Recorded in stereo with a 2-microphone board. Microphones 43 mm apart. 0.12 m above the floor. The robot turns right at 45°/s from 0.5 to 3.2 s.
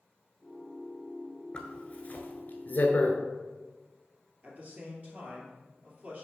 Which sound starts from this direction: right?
A man speaking, at 4.4 s.